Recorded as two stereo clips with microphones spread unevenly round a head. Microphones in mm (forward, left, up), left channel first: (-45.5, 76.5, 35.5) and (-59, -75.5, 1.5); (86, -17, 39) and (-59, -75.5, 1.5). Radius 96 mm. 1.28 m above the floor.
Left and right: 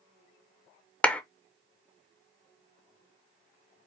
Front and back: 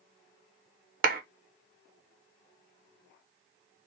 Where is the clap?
170° left, 0.5 m.